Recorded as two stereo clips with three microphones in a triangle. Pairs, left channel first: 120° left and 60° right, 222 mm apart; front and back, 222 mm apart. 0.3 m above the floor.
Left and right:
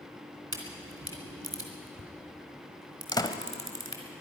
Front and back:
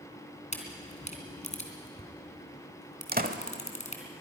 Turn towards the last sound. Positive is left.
turn(degrees=180)